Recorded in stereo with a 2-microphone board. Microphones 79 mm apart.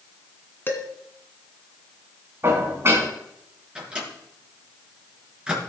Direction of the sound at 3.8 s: 15° right (ahead or behind).